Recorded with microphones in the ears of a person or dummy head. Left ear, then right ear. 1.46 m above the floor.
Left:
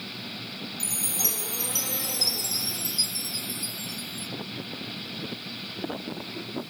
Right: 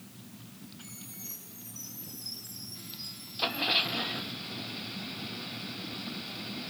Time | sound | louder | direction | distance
0.8 | a chime | left 18 dB | 65° left (ahead or behind) | 1.1 m